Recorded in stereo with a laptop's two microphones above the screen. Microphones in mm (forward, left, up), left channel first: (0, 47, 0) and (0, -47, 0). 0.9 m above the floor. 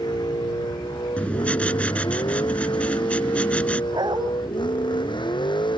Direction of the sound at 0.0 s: 50° left (ahead or behind).